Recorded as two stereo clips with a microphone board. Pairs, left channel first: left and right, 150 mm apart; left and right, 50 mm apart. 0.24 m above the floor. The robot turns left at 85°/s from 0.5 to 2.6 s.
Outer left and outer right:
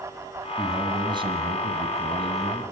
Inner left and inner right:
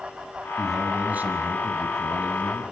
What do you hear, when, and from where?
0.6 s a man speaking: 5° left, 2 m; by 2.6 s 165° right, 2 m